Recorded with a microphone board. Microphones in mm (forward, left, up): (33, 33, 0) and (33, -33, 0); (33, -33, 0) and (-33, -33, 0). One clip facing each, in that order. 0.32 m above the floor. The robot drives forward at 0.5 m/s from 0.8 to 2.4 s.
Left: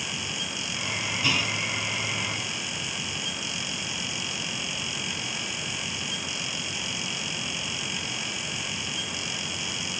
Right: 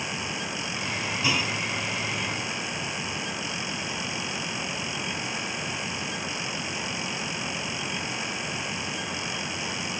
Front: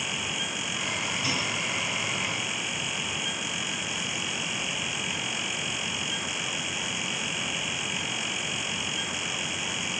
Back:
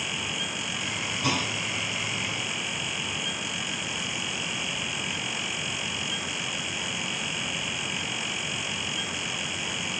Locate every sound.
1.2 s a clunk: 165° right, 1.6 m